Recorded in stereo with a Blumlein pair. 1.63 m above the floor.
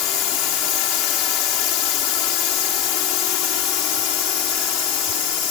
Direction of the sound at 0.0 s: 40° left.